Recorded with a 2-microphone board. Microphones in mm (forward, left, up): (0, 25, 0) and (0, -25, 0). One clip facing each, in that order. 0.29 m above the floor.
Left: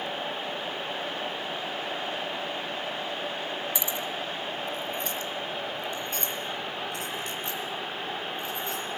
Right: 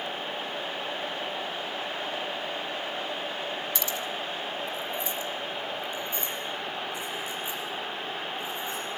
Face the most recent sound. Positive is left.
turn(degrees=85)